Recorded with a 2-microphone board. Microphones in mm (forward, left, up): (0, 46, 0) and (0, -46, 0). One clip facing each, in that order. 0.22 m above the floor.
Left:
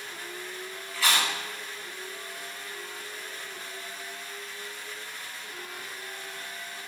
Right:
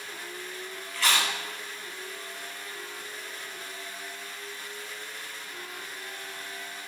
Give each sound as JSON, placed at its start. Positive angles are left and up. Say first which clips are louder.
{"t": 0.9, "sound": "chewing", "louder": "even", "side_deg": 5, "distance_m": 0.5}